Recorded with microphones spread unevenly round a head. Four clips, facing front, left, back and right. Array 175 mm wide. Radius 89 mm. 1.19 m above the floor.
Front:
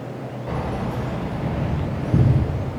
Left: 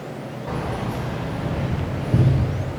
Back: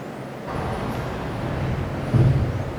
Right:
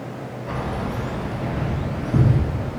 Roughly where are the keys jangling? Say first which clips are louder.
Even, even; ahead left.